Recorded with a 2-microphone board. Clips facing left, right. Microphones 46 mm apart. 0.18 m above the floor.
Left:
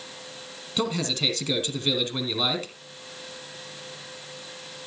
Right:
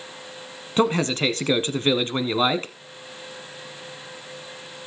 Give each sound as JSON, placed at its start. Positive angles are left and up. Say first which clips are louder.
{"t": 0.8, "sound": "a man speaking", "louder": "right 6 dB", "side_deg": -35, "distance_m": 1.5}